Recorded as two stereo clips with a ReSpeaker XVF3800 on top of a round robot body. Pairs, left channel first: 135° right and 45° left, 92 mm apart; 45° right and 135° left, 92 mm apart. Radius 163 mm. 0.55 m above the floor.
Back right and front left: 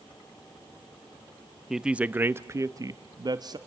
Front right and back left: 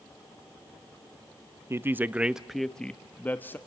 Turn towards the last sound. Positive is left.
turn(degrees=20)